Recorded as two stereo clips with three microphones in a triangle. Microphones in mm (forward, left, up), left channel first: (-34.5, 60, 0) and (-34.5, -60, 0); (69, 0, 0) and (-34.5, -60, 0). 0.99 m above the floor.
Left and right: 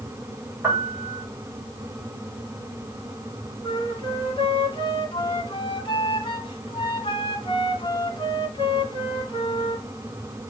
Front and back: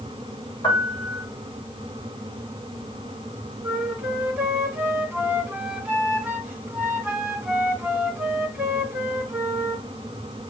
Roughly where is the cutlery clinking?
No cutlery clinking in this recording.